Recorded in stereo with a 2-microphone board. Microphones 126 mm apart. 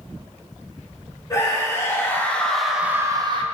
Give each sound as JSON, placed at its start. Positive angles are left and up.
{"t": 1.3, "sound": "a scream", "side_deg": 30, "distance_m": 2.0}